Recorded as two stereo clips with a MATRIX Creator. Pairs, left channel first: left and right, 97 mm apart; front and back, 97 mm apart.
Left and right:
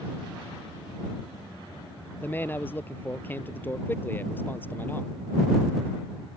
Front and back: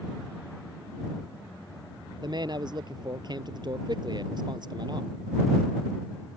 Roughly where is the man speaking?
Behind left.